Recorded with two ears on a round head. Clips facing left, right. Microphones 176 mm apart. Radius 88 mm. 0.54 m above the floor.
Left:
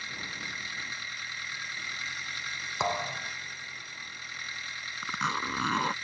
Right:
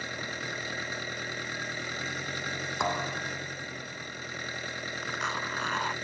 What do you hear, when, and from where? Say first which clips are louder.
0.0 s an engine running: right 8 dB; 45° right (ahead or behind)
2.8 s a thud: left 1 dB; 5° left (ahead or behind)
5.0 s a zipper: left 4 dB; 75° left (ahead or behind)